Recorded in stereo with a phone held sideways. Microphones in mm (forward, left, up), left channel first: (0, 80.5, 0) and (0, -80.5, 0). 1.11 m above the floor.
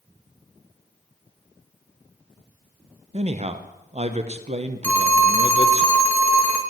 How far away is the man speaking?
About 0.8 m.